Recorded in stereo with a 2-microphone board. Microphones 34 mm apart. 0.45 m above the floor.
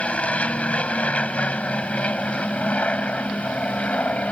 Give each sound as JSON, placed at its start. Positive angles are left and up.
{"t": 0.0, "sound": "an aircraft", "side_deg": 40}